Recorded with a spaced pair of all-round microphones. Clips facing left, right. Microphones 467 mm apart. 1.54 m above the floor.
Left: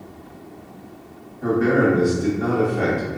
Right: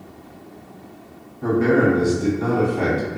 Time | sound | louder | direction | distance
1.4 | a man speaking | right 1 dB | 20° right (ahead or behind) | 0.9 m